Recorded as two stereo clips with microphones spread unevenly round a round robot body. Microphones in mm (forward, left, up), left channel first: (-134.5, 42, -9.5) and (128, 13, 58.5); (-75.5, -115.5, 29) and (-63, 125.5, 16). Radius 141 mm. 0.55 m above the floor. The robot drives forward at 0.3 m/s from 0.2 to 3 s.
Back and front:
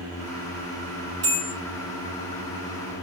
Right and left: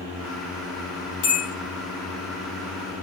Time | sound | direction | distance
1.2 | a bell | 65° right | 1.0 m